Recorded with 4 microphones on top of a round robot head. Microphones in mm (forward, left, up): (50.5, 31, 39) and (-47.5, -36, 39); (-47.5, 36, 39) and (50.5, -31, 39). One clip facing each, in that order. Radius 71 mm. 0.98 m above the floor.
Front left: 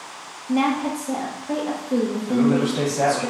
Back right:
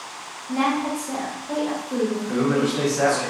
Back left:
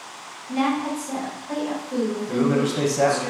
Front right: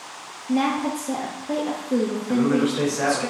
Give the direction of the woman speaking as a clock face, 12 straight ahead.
1 o'clock.